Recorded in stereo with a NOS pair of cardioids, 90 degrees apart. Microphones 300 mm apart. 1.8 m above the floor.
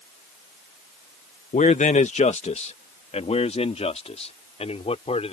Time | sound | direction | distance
1.5 | a man speaking | 25° left | ?